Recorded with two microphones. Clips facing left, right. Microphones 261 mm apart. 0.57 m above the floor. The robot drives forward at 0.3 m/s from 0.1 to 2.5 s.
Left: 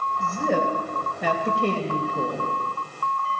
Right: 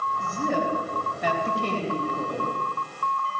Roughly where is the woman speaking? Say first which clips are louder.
Left 3 dB; left.